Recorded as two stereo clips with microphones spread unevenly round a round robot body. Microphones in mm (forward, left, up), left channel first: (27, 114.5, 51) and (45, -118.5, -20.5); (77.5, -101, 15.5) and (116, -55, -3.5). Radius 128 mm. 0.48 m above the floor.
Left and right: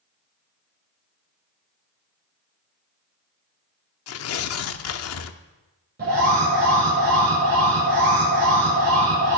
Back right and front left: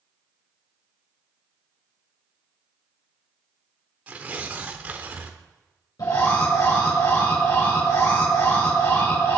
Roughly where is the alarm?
Behind right.